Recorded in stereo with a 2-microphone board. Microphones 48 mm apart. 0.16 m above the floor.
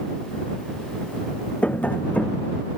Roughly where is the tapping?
Left.